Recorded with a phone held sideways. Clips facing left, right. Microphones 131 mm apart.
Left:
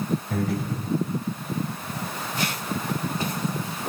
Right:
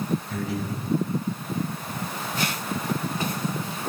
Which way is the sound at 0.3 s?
50° left (ahead or behind).